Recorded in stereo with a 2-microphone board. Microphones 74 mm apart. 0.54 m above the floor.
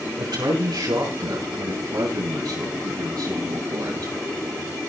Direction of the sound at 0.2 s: 85° right.